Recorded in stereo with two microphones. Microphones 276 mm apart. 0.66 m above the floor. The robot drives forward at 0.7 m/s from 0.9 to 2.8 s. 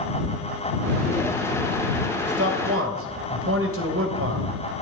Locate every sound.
2.2 s a man speaking: 60° right (ahead or behind), 3 m; by 4.5 s 50° right (ahead or behind), 3 m